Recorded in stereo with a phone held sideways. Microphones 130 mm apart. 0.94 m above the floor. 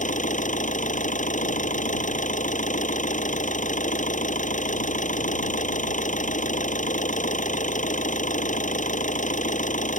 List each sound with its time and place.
0.0 s an engine running: 80° left